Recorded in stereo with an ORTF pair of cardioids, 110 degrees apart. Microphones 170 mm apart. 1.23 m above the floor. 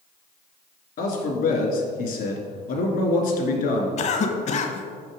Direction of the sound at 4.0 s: 45° left.